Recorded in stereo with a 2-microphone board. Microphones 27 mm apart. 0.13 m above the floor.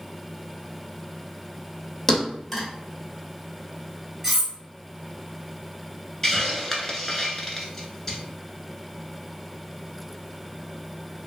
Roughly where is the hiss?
Centre.